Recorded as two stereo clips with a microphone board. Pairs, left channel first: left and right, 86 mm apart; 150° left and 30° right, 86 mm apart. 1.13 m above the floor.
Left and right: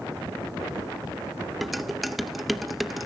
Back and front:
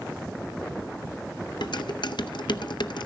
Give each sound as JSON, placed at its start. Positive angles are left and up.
{"t": 1.6, "sound": "dishes clattering", "azimuth_deg": 180, "distance_m": 0.6}